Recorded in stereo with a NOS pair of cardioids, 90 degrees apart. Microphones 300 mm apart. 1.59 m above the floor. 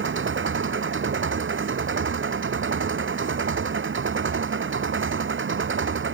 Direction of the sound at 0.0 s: 40° right.